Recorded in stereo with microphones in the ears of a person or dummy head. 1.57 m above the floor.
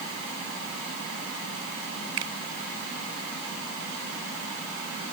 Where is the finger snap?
80° right.